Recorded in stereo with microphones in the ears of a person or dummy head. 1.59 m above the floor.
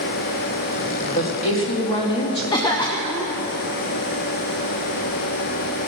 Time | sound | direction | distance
1.1 | a woman speaking | 45° left (ahead or behind) | 1.5 m
2.5 | a cough | 20° left (ahead or behind) | 0.7 m